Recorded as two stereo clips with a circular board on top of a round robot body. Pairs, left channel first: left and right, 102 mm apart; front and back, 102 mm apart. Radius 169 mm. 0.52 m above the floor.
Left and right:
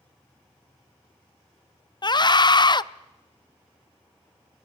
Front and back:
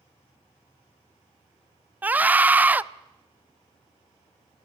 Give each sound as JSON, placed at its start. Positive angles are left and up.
{"t": 2.0, "sound": "a scream", "azimuth_deg": 110, "distance_m": 0.8}